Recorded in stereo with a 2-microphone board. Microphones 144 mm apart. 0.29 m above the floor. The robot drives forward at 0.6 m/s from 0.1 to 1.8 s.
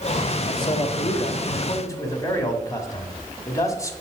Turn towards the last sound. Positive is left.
turn(degrees=25)  # may be behind; listen again after turning